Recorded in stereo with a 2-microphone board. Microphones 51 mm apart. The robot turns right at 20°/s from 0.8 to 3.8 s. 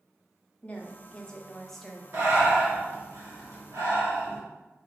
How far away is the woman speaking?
About 0.8 m.